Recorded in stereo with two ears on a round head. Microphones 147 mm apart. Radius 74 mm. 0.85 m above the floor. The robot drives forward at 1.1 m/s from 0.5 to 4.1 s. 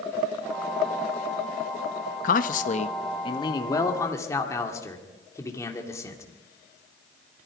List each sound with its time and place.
2.2 s a man speaking: 50° left (ahead or behind), 0.8 m; by 6.2 s 20° left (ahead or behind), 2 m